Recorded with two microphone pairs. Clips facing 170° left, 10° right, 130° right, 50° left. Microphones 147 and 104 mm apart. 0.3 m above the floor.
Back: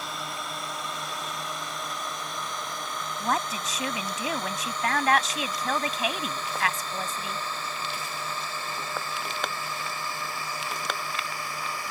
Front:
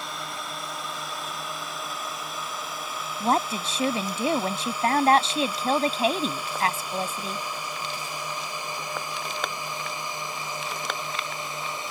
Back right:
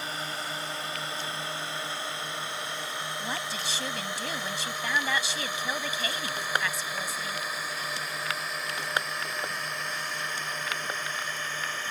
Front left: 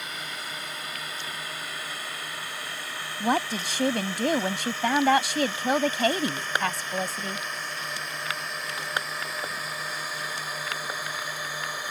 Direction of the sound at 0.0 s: 100° right.